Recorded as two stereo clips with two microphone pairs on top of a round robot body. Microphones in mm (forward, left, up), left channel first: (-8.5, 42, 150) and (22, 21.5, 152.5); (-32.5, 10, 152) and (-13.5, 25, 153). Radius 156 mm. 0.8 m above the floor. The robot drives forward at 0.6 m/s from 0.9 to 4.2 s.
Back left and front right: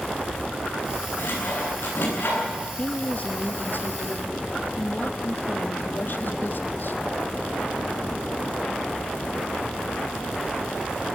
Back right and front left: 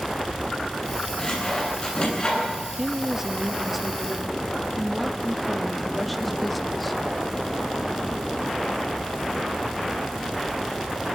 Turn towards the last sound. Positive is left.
turn(degrees=130)